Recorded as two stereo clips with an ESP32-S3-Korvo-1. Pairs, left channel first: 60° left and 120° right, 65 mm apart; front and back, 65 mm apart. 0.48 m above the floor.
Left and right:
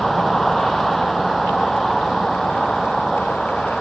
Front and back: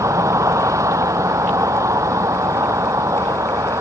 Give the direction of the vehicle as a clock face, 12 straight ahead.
7 o'clock.